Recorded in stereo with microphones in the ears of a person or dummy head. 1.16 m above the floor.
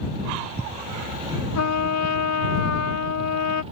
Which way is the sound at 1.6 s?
85° left.